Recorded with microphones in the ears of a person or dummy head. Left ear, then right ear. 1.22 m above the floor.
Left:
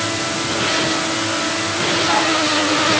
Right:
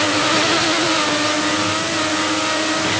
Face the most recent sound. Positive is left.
No sound to turn to.